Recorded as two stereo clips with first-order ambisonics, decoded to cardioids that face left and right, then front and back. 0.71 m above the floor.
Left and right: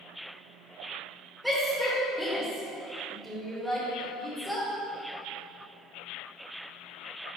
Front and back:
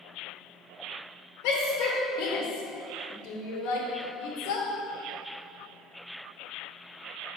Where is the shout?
Straight ahead, 2.5 m.